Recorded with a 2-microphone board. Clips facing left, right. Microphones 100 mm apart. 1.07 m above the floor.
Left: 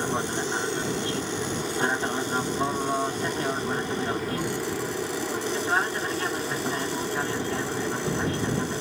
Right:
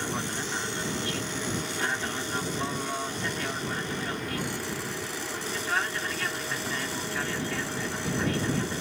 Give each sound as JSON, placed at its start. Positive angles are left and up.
{"t": 0.0, "sound": "an aircraft", "side_deg": 30}